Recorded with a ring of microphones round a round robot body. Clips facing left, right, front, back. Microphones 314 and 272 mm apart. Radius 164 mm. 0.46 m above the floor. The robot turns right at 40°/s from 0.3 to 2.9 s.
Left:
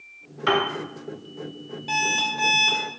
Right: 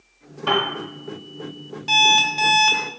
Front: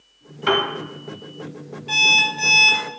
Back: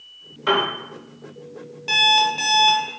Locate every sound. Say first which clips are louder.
0.5 s a piano: even, front 1 dB; 45° left, 1.2 m; by 0.7 s 55° left, 1.2 m
1.9 s an alarm clock: right 6 dB, back 6 dB; 150° right, 1.0 m; by 2.9 s 110° right, 1.0 m